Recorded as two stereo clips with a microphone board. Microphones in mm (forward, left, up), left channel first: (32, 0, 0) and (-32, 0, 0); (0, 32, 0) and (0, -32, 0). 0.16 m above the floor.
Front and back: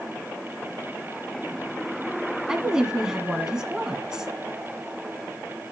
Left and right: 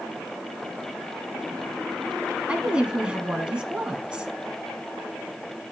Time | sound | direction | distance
2.5 | a woman speaking | 125° right | 1.2 m